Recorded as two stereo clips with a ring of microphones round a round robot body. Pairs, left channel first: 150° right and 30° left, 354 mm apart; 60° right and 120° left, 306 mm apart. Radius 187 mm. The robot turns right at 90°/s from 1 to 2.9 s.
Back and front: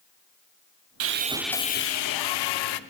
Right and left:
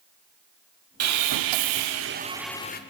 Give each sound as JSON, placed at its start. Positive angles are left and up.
{"t": 1.0, "sound": "sawing", "azimuth_deg": 80, "distance_m": 0.9}